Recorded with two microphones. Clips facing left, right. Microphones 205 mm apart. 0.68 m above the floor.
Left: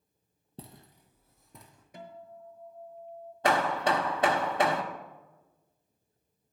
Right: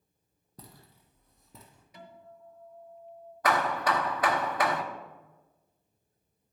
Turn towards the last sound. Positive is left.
turn(degrees=30)  # may be behind; listen again after turning